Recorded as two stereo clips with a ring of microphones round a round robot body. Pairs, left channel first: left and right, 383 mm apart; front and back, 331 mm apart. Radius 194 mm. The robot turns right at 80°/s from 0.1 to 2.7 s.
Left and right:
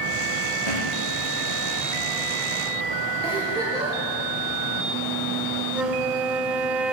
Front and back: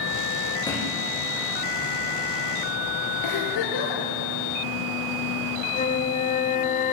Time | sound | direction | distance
0.7 | a thud | 75° left | 9 m
3.2 | a giggle | 10° right | 9 m
5.7 | a flute | 10° right | 1.4 m